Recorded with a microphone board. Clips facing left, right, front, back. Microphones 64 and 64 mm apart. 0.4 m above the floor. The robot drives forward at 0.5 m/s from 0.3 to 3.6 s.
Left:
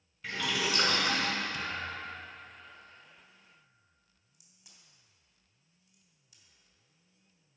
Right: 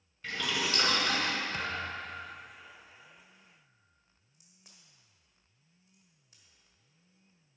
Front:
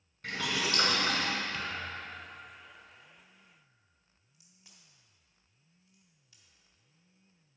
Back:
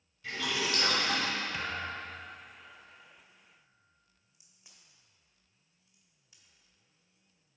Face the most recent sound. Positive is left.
turn(degrees=-115)